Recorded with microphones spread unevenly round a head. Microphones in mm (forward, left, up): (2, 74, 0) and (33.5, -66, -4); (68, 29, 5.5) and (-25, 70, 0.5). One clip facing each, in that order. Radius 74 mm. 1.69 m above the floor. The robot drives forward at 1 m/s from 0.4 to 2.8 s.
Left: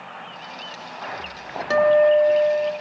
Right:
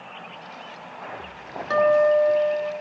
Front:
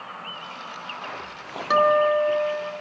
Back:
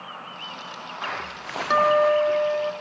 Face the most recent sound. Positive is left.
turn(degrees=120)